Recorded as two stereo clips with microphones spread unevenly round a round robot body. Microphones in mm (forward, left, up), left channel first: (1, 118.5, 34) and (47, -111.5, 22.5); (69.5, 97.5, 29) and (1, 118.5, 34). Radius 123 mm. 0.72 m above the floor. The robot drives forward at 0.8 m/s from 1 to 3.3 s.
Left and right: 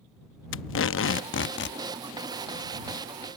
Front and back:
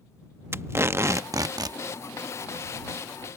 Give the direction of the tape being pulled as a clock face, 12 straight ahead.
8 o'clock.